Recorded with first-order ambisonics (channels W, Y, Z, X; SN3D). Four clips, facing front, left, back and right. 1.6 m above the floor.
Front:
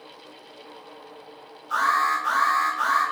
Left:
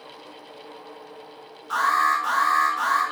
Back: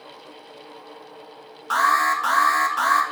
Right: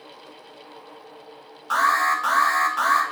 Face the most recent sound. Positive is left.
turn(degrees=-155)